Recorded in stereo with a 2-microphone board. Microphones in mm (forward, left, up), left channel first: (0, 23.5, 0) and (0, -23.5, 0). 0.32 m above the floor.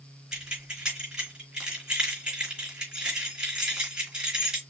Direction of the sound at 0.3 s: 20° right (ahead or behind).